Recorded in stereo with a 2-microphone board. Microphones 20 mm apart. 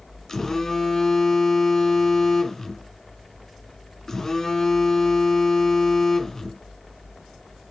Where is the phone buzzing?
25° left (ahead or behind), 1.8 m.